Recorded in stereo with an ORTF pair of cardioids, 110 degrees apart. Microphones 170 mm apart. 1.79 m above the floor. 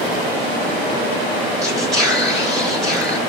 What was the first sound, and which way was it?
Whispering, straight ahead.